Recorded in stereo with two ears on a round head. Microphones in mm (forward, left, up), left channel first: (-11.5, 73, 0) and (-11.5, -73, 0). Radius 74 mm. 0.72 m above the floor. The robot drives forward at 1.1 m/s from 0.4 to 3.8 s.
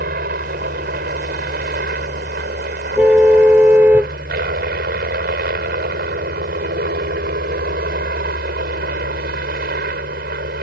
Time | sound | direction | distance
0.0 | a helicopter | 55° right (ahead or behind) | ?
3.0 | a car horn | 10° right (ahead or behind) | ?